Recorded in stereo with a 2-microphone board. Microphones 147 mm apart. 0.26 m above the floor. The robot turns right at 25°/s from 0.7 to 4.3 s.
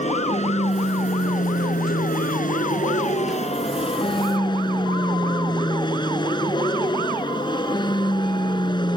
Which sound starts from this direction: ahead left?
An aircraft, at 0.0 s.